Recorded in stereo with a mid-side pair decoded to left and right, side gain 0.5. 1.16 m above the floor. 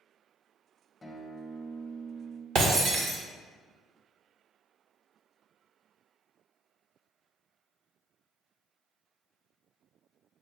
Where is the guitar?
20° left, 0.8 m.